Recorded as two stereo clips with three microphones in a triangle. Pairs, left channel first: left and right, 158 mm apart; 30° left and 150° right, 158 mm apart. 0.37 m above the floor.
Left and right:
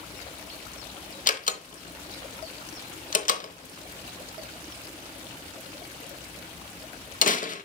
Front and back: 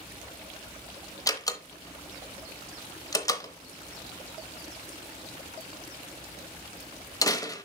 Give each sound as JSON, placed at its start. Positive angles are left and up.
{"t": 1.3, "sound": "a door slam", "azimuth_deg": 90, "distance_m": 0.8}